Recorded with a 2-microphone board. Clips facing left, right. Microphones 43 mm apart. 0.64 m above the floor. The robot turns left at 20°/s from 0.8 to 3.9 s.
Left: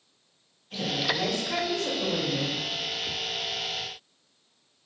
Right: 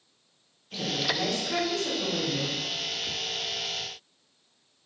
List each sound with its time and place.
0.7 s a woman speaking: straight behind, 1.4 m; by 2.6 s 145° left, 1.4 m